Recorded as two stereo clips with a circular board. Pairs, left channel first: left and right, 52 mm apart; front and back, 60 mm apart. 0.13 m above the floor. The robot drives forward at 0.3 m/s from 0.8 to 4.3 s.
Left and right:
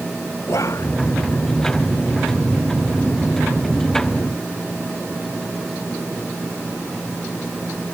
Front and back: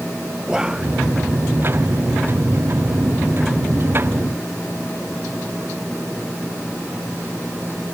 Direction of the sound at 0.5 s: 100° left.